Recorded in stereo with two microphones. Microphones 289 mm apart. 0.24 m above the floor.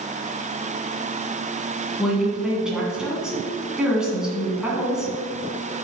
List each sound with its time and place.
2.0 s a woman speaking: centre (ahead or behind), 2.5 m